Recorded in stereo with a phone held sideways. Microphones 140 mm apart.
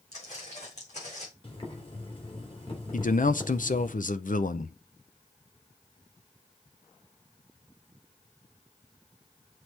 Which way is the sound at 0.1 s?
55° left (ahead or behind).